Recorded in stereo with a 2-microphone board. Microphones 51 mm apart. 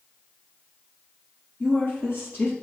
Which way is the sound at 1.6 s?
50° left (ahead or behind).